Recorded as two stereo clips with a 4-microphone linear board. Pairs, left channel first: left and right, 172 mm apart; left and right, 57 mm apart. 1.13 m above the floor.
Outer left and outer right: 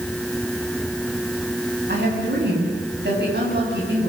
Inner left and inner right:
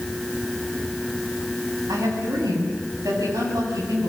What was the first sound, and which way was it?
A woman speaking, 80° right.